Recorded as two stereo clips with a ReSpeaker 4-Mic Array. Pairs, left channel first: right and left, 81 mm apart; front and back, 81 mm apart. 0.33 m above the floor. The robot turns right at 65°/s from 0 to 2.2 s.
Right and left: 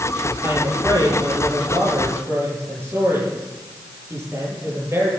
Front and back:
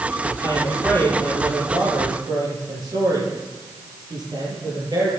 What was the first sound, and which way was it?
A woman speaking, 30° left.